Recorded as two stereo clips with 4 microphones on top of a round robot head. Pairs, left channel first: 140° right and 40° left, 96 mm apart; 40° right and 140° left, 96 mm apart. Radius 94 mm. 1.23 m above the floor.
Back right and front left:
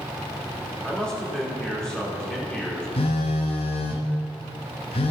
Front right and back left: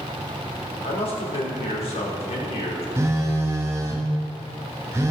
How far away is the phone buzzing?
About 0.7 m.